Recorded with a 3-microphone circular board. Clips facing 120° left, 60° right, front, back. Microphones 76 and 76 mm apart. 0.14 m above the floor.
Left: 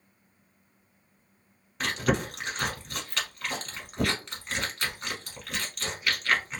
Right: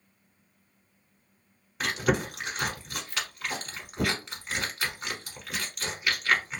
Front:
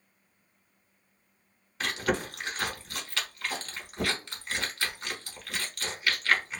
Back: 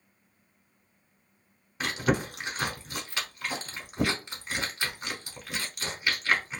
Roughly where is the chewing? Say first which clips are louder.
Right 1 dB, back 2 dB; behind right.